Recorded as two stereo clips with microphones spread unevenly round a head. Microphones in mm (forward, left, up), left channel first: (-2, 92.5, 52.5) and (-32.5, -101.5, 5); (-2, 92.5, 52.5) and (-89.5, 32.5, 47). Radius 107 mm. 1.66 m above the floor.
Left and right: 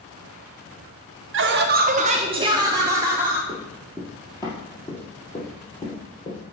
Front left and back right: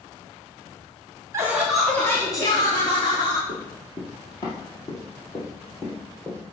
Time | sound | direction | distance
1.3 | laughter | 75° right | 0.8 m
3.5 | running footsteps | 10° left | 2.0 m